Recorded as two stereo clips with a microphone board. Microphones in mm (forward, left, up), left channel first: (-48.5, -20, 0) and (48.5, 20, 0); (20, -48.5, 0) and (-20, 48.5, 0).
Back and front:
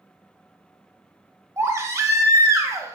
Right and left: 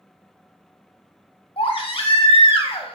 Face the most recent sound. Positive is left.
turn(degrees=-40)